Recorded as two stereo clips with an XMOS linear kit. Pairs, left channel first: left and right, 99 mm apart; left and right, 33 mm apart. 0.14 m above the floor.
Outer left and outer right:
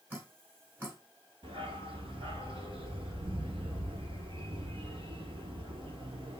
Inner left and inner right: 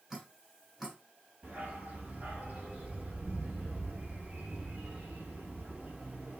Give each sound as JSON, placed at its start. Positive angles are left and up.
{"t": 0.1, "sound": "dripping", "side_deg": -20, "distance_m": 1.5}
{"t": 1.4, "sound": "a dog barking", "side_deg": -60, "distance_m": 1.1}